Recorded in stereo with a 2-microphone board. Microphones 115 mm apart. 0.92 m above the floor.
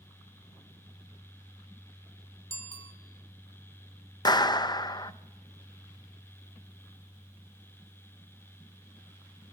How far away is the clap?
About 0.6 m.